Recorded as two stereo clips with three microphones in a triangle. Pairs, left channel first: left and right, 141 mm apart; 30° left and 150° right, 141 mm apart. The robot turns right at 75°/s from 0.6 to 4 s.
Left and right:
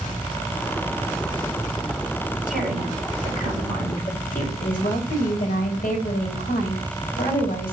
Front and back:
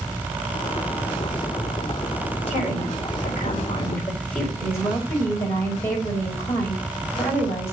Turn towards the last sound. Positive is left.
turn(degrees=100)